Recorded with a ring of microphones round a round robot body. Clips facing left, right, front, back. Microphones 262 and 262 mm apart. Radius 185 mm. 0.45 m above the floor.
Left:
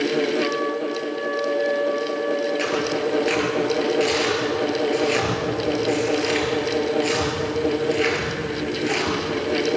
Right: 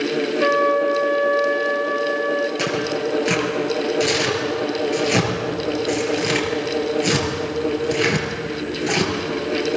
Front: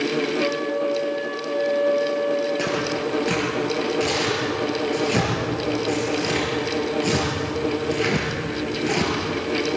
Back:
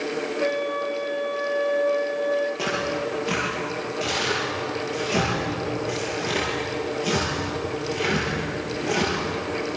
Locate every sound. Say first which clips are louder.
0.4 s a flute: right 5 dB, front 3 dB; 105° right, 1.6 m
2.6 s tearing paper: even, front 3 dB; 60° right, 6 m